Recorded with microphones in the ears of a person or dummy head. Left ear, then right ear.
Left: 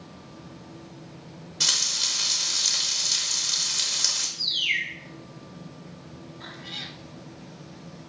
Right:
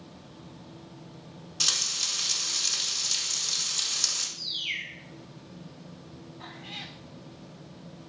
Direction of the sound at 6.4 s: 20° right (ahead or behind).